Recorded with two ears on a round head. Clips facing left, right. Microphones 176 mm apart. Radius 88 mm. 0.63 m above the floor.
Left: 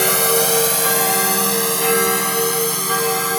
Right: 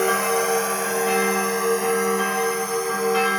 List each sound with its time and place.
0.0 s a drone: 50° left (ahead or behind)